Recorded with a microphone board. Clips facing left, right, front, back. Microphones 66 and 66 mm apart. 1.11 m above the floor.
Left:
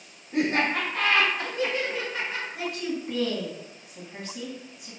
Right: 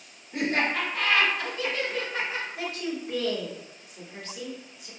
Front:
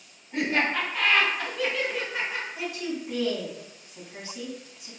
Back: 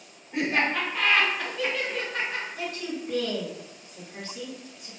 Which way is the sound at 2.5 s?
75° left.